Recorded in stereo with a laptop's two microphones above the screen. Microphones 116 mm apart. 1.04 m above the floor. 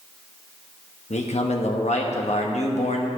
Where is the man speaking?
75° left (ahead or behind), 1.0 m.